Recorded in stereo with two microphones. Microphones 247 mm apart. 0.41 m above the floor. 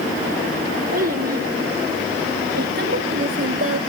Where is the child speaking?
35° right (ahead or behind), 4 m; by 3.8 s 60° right (ahead or behind), 0.7 m.